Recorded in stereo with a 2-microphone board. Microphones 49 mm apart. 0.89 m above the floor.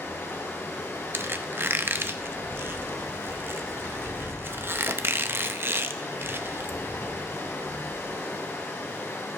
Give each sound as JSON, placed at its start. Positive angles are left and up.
{"t": 0.0, "sound": "running water", "side_deg": 70, "distance_m": 3.0}
{"t": 1.1, "sound": "a squeak", "side_deg": -55, "distance_m": 0.6}